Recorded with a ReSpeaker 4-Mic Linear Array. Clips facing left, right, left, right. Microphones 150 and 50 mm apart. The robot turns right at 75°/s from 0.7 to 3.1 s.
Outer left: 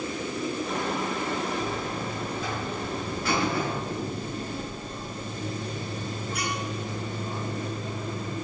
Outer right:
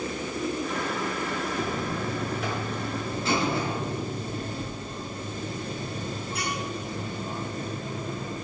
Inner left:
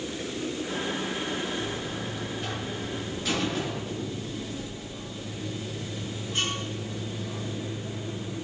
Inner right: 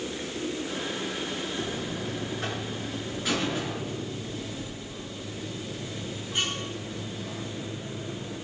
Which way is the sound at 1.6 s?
140° right.